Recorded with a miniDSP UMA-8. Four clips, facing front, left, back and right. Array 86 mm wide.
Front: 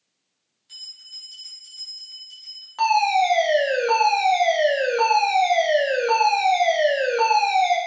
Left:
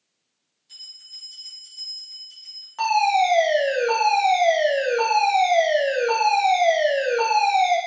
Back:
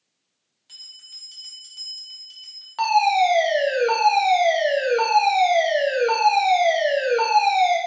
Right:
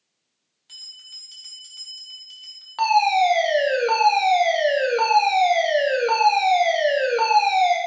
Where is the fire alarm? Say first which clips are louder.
Right 1 dB, back 1 dB; 115° right, 1.5 m.